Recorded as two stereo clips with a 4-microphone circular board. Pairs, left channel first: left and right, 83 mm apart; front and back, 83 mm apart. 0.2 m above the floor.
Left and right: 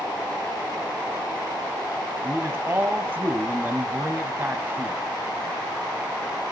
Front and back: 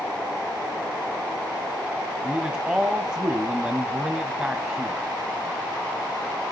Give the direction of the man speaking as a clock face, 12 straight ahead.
4 o'clock.